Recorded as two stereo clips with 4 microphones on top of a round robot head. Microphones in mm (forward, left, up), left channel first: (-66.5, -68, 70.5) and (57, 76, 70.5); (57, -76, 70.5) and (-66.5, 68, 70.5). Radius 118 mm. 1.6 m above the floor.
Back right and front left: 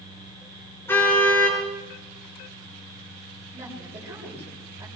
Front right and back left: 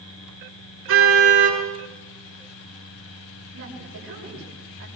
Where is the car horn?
150° left, 9 m.